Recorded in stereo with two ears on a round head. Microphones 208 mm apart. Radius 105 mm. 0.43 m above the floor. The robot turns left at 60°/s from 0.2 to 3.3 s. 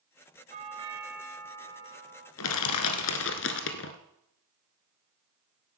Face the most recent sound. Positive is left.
turn(degrees=55)